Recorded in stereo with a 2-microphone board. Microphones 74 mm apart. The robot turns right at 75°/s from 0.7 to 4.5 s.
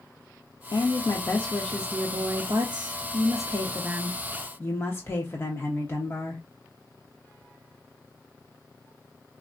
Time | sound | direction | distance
0.7 | a woman speaking | 105° left | 0.8 m